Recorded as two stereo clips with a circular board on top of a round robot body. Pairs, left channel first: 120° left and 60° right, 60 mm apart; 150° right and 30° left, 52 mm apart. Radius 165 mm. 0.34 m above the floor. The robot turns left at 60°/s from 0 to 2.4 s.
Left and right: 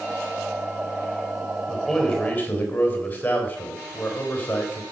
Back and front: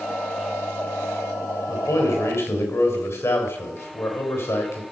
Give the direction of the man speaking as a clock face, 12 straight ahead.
5 o'clock.